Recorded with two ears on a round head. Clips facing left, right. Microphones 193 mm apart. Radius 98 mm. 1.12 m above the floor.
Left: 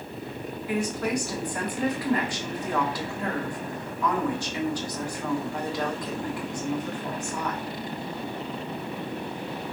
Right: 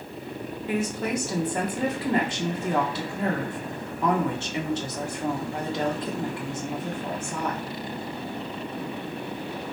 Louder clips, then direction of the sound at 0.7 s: Even; 20° right (ahead or behind).